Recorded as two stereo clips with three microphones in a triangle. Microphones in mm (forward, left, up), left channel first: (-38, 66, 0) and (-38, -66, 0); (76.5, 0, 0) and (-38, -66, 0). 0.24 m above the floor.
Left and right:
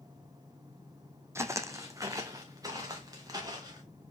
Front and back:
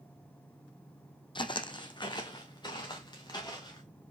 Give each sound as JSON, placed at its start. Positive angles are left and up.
{"t": 1.4, "sound": "footsteps", "azimuth_deg": -25, "distance_m": 0.6}